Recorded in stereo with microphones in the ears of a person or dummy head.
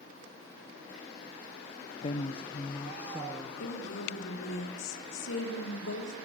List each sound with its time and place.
2.0 s a woman speaking: 35° left (ahead or behind), 0.5 m; by 3.5 s centre (ahead or behind), 1.1 m
3.6 s a woman speaking: 80° left, 3.5 m